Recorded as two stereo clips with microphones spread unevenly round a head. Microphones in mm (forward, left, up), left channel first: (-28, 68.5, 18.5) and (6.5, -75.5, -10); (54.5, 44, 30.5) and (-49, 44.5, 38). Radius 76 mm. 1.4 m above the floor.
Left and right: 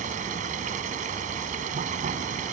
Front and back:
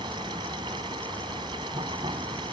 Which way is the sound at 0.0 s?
120° right.